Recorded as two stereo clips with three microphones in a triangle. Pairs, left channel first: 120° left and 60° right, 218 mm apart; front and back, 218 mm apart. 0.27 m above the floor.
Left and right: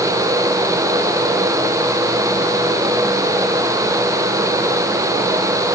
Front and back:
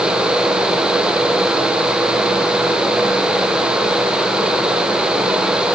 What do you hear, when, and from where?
Only background noise.